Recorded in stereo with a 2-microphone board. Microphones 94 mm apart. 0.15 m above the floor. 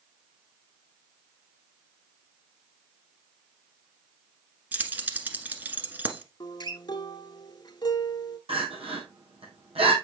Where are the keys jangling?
20° right (ahead or behind), 1.1 m.